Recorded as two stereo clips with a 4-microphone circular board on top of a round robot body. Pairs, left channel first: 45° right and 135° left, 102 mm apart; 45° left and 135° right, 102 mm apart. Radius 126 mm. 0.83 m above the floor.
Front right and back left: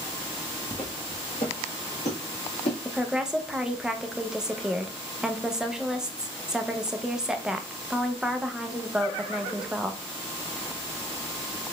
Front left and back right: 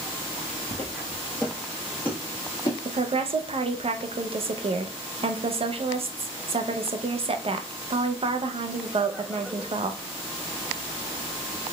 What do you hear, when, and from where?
0.7 s footsteps: 120° right, 1.0 m; by 2.8 s 15° right, 1.5 m
2.9 s a woman speaking: 140° right, 0.6 m